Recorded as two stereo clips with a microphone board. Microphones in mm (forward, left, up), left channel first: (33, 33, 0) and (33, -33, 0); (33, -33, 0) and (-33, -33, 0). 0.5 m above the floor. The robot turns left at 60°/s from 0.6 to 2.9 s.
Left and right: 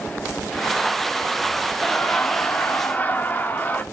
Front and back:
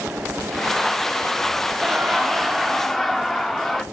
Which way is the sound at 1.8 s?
145° left.